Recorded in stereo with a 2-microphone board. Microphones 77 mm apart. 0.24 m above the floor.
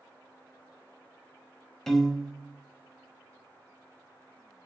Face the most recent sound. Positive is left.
turn(degrees=5)  # may be behind; listen again after turning